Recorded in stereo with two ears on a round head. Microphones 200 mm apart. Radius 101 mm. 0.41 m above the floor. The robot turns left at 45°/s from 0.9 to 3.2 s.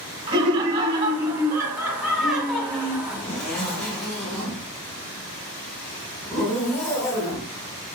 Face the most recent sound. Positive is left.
turn(degrees=5)  # may be behind; listen again after turning